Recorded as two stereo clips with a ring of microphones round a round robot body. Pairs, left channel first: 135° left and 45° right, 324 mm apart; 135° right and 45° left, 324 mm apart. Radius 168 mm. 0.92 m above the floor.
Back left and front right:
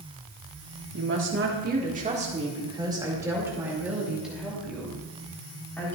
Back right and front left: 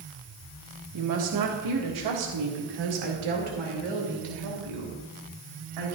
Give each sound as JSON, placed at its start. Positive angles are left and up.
{"t": 0.9, "sound": "a woman speaking", "azimuth_deg": 5, "distance_m": 1.7}